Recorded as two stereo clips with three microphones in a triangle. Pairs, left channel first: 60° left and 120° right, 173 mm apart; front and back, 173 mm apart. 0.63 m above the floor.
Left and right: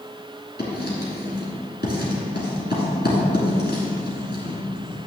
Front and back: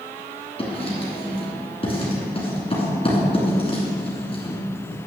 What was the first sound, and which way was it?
Writing, 55° left.